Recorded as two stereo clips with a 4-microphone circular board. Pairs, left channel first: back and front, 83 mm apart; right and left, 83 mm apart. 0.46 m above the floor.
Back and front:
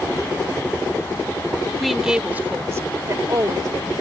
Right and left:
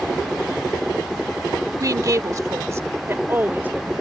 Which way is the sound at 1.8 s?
95° left.